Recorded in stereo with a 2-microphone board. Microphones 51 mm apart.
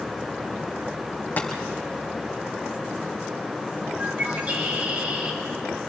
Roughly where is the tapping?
Left.